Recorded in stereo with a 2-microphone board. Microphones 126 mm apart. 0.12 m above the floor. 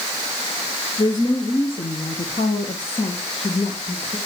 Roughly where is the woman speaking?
Left.